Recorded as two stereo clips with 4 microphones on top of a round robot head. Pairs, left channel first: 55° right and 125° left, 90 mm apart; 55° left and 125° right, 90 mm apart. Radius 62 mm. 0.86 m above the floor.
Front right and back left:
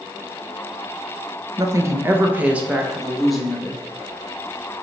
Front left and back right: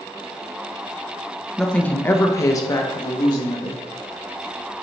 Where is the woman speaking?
135° left, 1.0 m; by 3.8 s 25° left, 1.7 m.